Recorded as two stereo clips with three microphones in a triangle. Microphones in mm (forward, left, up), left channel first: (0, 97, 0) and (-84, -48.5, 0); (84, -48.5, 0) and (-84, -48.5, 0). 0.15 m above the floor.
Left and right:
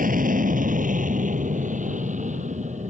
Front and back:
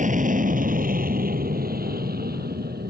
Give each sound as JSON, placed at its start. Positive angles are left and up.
{"t": 0.0, "sound": "an aircraft", "azimuth_deg": -145}